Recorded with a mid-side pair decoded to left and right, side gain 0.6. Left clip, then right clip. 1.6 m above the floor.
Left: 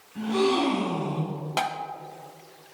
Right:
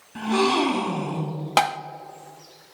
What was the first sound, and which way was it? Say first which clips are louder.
A gasp: right 3 dB; 65° right.